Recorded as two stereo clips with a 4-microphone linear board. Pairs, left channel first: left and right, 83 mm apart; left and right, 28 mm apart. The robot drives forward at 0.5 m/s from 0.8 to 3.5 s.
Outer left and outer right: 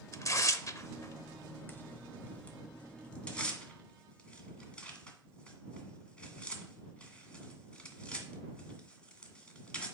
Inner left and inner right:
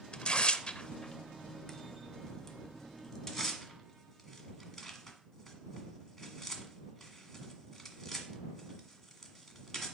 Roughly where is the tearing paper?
Left.